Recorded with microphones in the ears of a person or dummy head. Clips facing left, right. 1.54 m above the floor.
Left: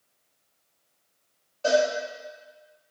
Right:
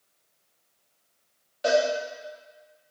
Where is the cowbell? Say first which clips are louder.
Left 1 dB; 25° right (ahead or behind), 0.7 m.